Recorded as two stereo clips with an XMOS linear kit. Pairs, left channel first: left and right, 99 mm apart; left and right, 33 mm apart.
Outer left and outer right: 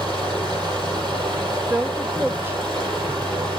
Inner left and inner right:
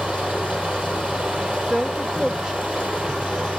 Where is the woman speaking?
25° right (ahead or behind), 0.8 m.